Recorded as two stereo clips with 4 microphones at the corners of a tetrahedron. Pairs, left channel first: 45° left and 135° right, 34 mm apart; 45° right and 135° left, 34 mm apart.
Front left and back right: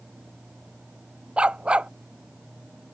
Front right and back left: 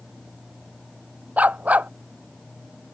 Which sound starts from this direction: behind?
A dog barking, at 1.4 s.